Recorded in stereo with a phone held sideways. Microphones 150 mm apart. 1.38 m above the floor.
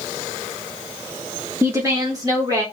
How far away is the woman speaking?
About 1.0 m.